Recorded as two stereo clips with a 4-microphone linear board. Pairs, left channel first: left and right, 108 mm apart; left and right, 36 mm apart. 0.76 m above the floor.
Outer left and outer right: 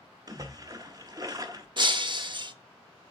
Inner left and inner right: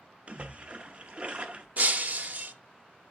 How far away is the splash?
About 0.8 m.